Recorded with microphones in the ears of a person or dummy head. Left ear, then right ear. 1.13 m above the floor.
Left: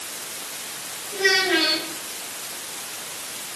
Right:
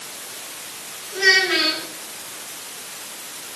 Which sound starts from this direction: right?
A child speaking, at 1.1 s.